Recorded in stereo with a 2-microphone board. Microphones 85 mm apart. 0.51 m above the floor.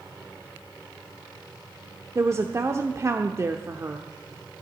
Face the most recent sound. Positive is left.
turn(degrees=-35)  # may be behind; listen again after turning